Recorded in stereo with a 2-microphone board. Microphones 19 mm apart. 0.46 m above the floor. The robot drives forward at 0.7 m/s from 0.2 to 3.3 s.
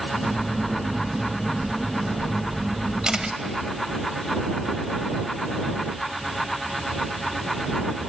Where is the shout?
No shout in this recording.